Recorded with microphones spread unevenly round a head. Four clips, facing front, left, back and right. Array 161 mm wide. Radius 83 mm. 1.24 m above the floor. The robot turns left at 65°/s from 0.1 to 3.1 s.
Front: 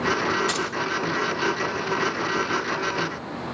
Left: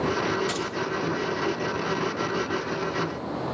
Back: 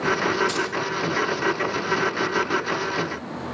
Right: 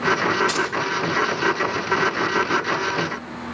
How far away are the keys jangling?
About 2 m.